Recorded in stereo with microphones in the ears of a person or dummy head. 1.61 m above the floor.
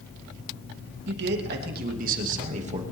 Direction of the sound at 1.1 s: 65° right (ahead or behind).